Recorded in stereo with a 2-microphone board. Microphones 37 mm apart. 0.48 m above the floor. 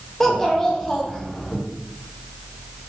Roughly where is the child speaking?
Centre.